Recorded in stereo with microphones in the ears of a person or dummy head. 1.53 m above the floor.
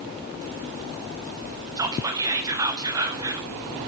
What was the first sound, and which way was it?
Whispering, 15° right (ahead or behind).